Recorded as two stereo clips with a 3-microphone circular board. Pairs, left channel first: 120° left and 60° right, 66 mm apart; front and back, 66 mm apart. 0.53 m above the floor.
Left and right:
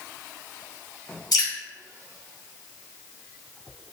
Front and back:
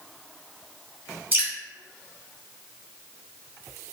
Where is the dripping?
115° left, 1.0 m.